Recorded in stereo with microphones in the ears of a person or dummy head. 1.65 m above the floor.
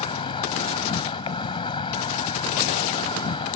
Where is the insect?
20° left (ahead or behind).